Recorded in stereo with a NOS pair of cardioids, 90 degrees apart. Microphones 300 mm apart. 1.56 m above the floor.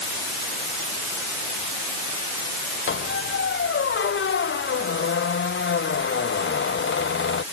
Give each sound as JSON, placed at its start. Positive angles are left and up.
{"t": 2.9, "sound": "a squeak", "azimuth_deg": 40}